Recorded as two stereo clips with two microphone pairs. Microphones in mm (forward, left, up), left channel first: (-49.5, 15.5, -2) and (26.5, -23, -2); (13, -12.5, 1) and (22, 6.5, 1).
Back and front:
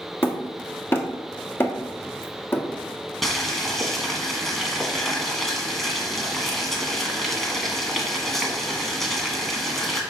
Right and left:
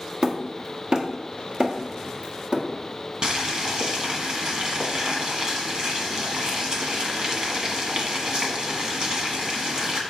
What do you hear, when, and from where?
0.2 s hammering: 95° left, 1.1 m
3.2 s boiling: 65° left, 1.6 m